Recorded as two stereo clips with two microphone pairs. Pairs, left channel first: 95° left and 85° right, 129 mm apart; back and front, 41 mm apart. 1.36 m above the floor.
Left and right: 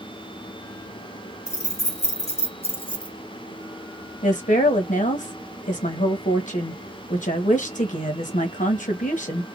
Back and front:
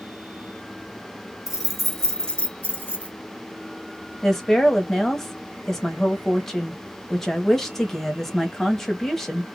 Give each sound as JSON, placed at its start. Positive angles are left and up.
{"t": 1.5, "sound": "keys jangling", "azimuth_deg": 75, "distance_m": 1.0}
{"t": 4.2, "sound": "a woman speaking", "azimuth_deg": 95, "distance_m": 1.0}